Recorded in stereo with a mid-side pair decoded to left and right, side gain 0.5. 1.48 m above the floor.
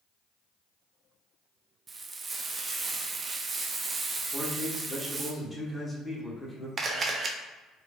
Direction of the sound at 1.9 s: 35° right.